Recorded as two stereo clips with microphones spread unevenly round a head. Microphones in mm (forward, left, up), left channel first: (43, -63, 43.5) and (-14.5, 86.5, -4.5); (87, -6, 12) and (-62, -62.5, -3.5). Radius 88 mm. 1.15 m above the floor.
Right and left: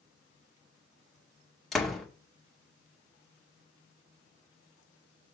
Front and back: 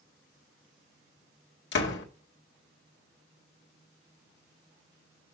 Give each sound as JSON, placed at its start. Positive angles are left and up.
{"t": 1.7, "sound": "a door slam", "azimuth_deg": 20, "distance_m": 2.0}